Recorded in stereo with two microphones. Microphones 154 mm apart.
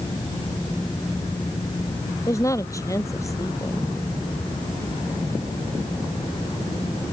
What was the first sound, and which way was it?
A woman speaking, 20° left (ahead or behind).